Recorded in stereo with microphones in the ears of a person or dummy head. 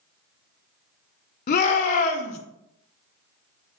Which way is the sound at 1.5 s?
45° left (ahead or behind).